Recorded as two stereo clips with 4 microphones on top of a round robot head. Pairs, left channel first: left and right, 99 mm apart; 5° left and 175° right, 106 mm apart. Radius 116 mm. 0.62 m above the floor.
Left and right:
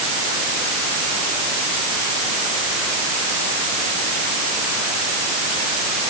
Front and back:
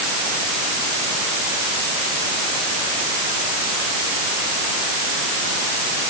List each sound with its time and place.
Only background noise.